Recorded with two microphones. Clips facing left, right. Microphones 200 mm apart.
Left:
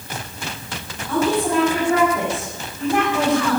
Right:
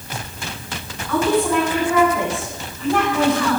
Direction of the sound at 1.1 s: 20° left (ahead or behind).